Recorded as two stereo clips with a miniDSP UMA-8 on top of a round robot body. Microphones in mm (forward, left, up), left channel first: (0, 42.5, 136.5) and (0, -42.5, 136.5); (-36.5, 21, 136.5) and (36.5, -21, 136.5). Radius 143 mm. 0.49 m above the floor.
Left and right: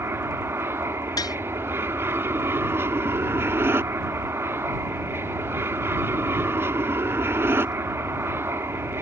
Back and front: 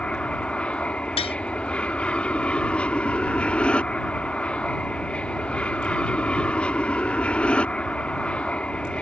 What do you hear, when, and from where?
0.0 s an aircraft: 140° right
1.2 s tapping: 140° left